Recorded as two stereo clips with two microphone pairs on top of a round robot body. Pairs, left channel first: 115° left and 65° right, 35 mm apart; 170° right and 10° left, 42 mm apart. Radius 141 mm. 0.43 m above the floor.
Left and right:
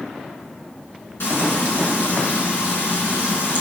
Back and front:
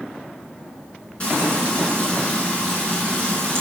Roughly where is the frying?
Behind left.